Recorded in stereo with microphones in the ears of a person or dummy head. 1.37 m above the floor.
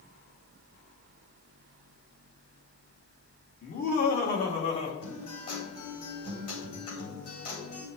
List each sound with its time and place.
3.6 s laughter: 45° left (ahead or behind), 2 m
5.0 s a guitar: 45° left (ahead or behind), 4 m